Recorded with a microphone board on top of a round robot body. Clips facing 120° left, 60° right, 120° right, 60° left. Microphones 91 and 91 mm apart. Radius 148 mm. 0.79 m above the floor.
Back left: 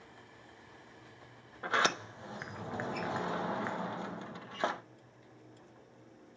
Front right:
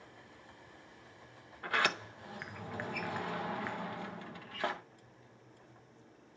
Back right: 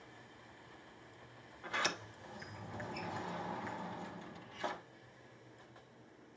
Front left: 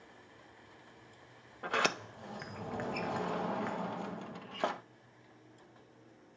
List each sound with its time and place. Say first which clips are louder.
1.6 s a sliding door: back left 2 dB, front left 6 dB; 55° left, 0.8 m